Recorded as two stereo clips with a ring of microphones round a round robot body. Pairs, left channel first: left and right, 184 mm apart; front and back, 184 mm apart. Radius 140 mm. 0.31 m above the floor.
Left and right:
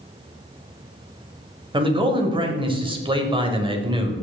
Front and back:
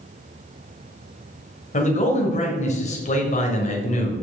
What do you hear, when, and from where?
1.7 s a man speaking: 35° right, 1.7 m